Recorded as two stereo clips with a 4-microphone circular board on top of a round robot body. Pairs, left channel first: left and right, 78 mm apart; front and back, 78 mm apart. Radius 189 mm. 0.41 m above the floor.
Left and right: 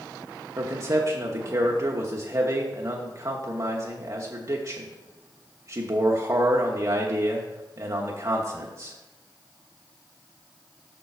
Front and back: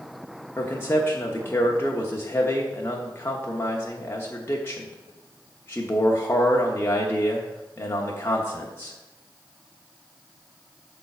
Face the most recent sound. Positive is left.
turn(degrees=-55)